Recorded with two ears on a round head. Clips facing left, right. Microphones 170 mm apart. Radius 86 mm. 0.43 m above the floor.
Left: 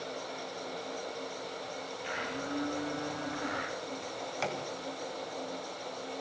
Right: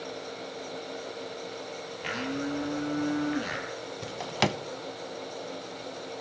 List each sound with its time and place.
2.0 s a blender: 70° right (ahead or behind), 8 m
4.0 s a drawer: 70° right (ahead or behind), 0.9 m